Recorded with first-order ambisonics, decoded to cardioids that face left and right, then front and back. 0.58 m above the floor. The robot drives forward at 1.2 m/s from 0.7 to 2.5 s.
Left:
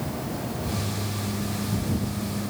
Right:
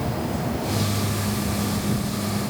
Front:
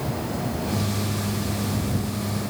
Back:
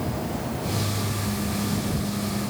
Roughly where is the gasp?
I don't hear a gasp.